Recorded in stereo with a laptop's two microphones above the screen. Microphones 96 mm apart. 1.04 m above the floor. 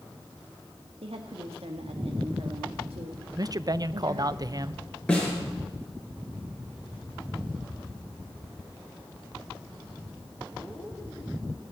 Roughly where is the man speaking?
Right.